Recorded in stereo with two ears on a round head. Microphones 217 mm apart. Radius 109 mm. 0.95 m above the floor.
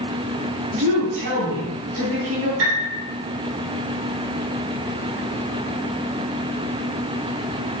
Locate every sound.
0.7 s a woman speaking: 65° right (ahead or behind), 4.5 m
2.6 s a piano: 55° right (ahead or behind), 3.5 m